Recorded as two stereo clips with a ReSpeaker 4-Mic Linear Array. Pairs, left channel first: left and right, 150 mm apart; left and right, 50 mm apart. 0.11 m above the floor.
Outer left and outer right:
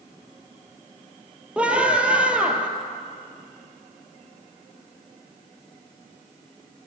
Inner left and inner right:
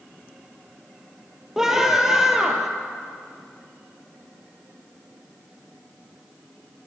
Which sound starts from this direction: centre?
A scream, at 1.6 s.